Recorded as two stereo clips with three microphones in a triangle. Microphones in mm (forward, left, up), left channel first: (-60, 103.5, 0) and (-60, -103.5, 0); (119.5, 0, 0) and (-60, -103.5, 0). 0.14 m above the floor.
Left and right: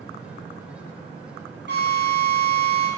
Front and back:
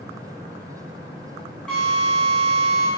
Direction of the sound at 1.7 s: 55° right.